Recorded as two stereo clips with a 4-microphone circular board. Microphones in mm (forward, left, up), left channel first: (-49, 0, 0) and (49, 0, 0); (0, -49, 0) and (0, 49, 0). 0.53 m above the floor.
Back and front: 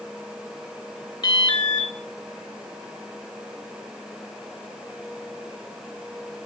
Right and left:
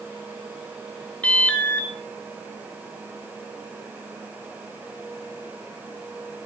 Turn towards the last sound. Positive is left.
turn(degrees=-165)